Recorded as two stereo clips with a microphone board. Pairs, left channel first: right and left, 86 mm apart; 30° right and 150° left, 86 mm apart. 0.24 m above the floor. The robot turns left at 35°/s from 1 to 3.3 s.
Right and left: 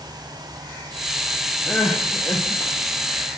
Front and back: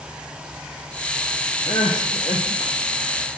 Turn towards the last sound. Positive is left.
turn(degrees=-75)